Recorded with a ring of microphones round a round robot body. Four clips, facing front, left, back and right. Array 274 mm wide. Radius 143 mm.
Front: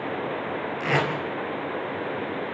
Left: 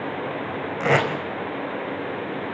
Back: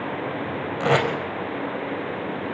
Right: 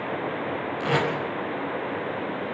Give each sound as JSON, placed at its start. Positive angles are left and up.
{"t": 0.8, "sound": "tape being pulled", "azimuth_deg": 140, "distance_m": 4.5}